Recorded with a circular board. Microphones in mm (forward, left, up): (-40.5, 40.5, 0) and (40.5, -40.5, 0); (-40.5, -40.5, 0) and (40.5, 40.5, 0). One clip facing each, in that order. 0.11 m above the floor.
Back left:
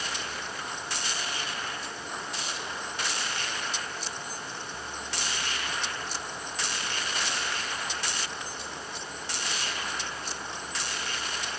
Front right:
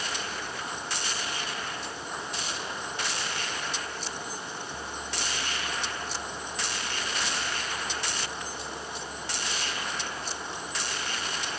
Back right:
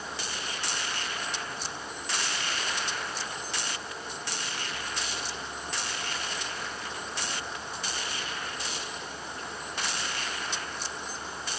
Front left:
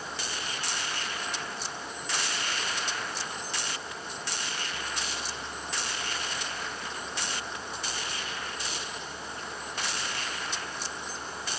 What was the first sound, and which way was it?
Only background noise.